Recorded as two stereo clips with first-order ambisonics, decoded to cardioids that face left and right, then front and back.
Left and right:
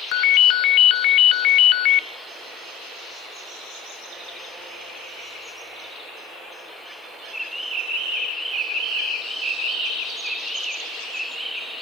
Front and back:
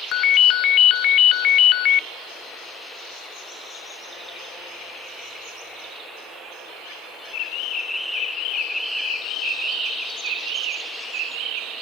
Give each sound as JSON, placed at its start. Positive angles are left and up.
{"t": 0.1, "sound": "a ringtone", "azimuth_deg": 50, "distance_m": 0.6}